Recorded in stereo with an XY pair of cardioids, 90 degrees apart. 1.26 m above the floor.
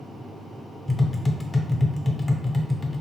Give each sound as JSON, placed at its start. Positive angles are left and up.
{"t": 0.9, "sound": "tapping", "azimuth_deg": 25, "distance_m": 0.5}